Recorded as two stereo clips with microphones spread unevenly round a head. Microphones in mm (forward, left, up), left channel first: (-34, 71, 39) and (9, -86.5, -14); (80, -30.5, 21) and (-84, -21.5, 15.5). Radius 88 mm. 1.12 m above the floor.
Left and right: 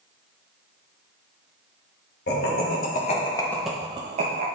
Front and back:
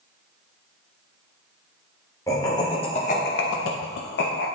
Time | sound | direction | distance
2.3 | laughter | 70° left | 1.3 m